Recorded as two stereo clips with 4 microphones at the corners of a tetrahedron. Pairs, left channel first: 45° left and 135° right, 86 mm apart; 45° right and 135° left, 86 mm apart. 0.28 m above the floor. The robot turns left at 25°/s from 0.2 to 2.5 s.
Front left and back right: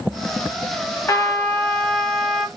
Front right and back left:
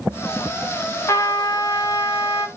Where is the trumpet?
5° right, 0.9 m; by 2.5 s 40° right, 0.9 m.